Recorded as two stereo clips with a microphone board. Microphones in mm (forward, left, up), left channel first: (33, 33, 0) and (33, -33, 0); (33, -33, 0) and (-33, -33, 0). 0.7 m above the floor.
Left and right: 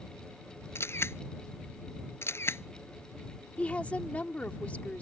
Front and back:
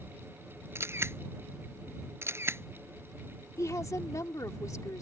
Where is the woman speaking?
25° left.